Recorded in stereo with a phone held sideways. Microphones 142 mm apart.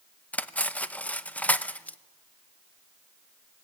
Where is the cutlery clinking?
10° left (ahead or behind), 0.7 m.